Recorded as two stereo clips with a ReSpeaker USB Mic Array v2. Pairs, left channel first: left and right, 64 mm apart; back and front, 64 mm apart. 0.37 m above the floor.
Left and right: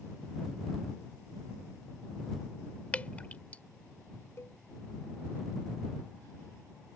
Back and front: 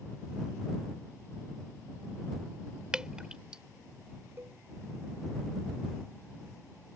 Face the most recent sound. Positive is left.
turn(degrees=45)